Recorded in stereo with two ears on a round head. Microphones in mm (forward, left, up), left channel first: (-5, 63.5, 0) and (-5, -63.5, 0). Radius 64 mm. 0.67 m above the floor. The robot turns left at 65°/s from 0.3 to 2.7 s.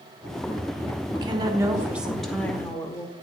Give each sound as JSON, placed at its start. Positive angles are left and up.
{"t": 1.1, "sound": "a woman speaking", "azimuth_deg": -115, "distance_m": 1.0}